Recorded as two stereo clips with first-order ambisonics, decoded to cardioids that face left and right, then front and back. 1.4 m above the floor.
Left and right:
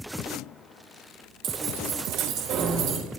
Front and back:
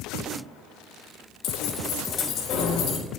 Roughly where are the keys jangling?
Ahead right.